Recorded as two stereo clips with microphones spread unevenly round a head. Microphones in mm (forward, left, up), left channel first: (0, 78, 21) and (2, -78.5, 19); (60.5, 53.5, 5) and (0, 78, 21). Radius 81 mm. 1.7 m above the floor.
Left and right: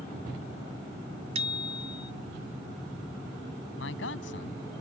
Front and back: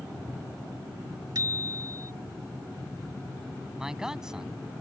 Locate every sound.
1.4 s a bicycle bell: 145° right
3.8 s a man speaking: 80° left